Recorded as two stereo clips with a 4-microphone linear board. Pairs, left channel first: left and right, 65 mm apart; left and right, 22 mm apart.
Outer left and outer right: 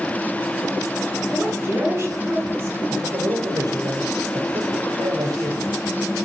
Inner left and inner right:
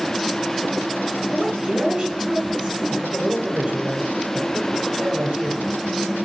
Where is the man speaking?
70° right (ahead or behind), 3.5 m.